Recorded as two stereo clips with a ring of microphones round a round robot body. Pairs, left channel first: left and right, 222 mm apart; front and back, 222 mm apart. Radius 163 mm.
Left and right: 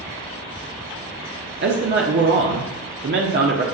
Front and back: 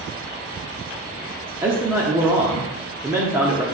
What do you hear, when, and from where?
1.6 s a man speaking: 100° right, 1.1 m